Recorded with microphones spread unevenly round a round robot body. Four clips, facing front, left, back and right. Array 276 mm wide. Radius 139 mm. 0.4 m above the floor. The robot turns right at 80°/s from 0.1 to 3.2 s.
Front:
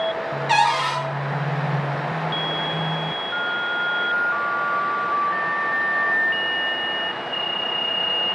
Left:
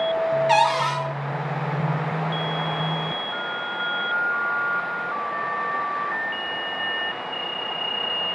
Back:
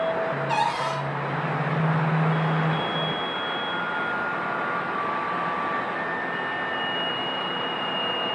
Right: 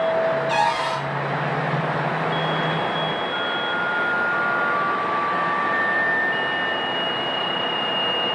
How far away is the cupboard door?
About 0.5 m.